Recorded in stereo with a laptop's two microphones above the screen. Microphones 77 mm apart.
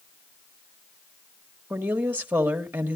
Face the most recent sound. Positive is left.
turn(degrees=-25)  # may be behind; listen again after turning